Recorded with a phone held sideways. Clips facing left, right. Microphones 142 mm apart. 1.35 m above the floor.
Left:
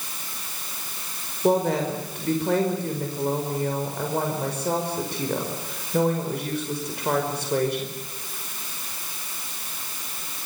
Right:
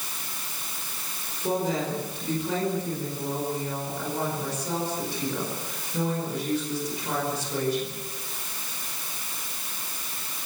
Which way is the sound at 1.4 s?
65° left (ahead or behind).